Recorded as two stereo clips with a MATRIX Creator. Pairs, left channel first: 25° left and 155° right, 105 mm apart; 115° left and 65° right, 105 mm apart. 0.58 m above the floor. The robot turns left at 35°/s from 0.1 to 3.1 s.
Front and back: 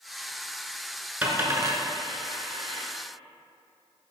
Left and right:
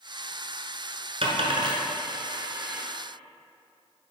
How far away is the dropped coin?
About 1.2 m.